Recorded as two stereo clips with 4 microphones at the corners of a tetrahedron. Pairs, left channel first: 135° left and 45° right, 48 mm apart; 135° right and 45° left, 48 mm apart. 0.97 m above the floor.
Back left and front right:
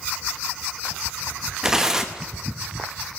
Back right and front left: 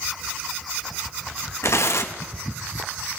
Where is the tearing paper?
120° right, 1.0 m.